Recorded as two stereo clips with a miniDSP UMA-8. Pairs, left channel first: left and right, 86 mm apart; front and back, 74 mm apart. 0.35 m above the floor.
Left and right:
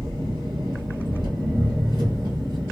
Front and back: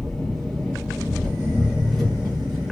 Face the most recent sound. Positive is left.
turn(degrees=-85)